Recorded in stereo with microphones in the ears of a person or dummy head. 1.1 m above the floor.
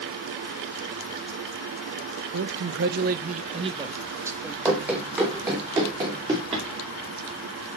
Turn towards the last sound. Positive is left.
turn(degrees=-30)  # may be behind; listen again after turning